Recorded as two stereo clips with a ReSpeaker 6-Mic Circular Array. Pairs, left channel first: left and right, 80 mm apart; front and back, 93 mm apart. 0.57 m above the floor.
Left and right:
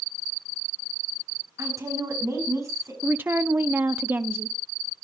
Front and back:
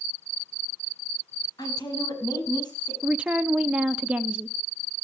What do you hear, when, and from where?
1.6 s a woman speaking: 40° right, 4.5 m
3.0 s a woman speaking: 115° right, 0.6 m